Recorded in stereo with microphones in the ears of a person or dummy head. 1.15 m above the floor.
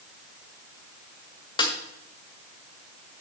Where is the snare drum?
20° left (ahead or behind), 1.9 m.